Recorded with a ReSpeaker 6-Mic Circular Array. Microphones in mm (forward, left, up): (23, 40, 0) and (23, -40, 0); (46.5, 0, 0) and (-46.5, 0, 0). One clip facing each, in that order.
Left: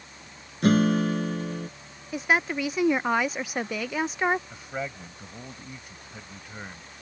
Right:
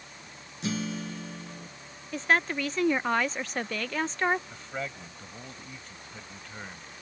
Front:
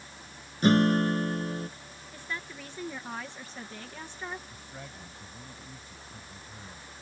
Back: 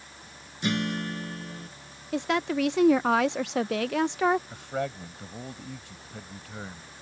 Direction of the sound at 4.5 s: 170° left.